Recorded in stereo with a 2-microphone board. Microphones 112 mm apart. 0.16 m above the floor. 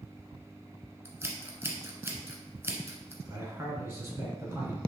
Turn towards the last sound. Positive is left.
turn(degrees=-20)  # may be behind; listen again after turning